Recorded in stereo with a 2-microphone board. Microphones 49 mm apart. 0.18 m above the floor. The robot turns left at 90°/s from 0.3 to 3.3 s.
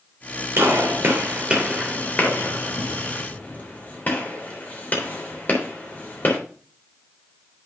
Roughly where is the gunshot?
Right.